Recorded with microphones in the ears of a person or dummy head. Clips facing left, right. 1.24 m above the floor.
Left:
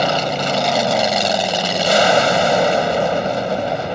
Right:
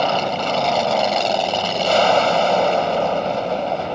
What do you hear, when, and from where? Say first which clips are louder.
0.0 s an aircraft: left 1 dB; 15° left (ahead or behind)